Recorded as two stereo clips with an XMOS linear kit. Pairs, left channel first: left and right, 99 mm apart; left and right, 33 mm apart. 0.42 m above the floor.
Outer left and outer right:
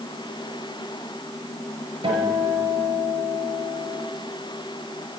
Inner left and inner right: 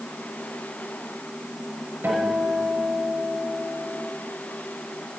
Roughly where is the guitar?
Right.